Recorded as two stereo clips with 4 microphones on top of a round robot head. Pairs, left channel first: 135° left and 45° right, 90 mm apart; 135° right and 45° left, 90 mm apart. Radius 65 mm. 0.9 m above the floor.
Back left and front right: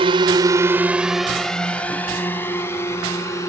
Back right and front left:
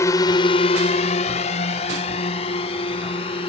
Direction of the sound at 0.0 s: 75° right.